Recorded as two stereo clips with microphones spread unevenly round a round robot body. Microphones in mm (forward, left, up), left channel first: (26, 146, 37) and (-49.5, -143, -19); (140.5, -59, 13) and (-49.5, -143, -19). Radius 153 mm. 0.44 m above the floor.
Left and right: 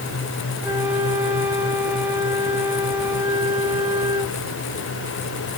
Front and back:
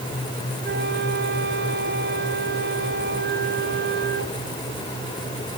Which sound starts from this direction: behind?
A flute, at 0.6 s.